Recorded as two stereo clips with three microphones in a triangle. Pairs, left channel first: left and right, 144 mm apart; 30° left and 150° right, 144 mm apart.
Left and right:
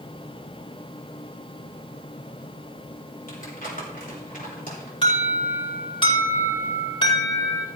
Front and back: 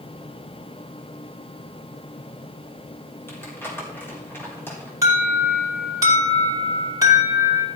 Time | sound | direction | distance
3.3 | crumpling | 105° left | 4 m
5.0 | an alarm | 145° left | 5 m